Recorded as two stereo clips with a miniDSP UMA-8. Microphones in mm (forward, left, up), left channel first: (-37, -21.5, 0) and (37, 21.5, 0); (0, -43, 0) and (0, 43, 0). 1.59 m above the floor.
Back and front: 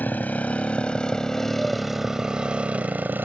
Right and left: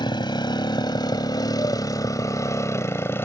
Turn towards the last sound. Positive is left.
turn(degrees=-30)